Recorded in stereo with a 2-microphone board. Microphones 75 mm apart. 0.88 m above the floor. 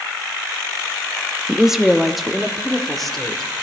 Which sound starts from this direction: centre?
A woman speaking, at 1.5 s.